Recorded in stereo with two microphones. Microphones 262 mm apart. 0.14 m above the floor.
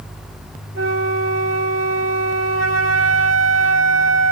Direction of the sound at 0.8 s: 55° right (ahead or behind).